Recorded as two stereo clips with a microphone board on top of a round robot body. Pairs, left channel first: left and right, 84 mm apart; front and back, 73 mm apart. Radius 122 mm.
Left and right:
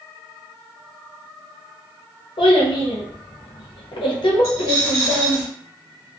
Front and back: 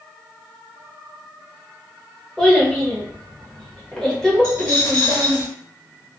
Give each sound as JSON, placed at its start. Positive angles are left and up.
{"t": 2.4, "sound": "a child speaking", "azimuth_deg": 80, "distance_m": 0.8}
{"t": 4.4, "sound": "a dropped coin", "azimuth_deg": -35, "distance_m": 0.9}